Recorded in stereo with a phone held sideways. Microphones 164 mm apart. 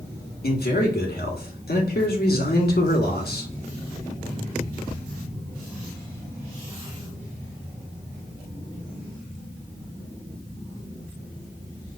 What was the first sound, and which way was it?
A man speaking, 70° left (ahead or behind).